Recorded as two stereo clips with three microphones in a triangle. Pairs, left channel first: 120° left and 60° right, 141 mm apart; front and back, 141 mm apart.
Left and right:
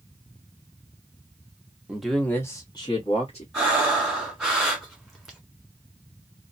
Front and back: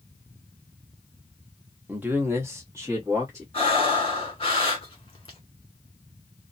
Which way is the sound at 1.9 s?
130° right.